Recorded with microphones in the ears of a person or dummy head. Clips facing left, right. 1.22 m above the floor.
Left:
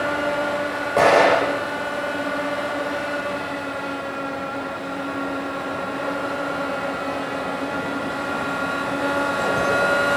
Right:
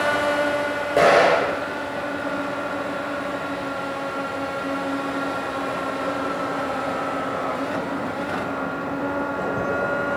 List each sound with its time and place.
1.0 s an explosion: 10° right (ahead or behind), 6.5 m